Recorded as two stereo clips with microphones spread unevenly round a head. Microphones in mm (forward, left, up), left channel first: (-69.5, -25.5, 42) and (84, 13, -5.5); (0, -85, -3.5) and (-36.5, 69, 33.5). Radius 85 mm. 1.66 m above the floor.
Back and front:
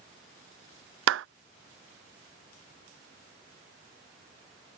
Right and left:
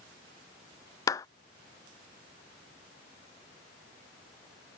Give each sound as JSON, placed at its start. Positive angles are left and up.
{"t": 1.1, "sound": "a clap", "azimuth_deg": 0}